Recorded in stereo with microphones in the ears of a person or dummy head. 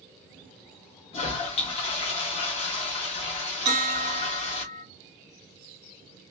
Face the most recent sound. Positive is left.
turn(degrees=-15)  # may be behind; listen again after turning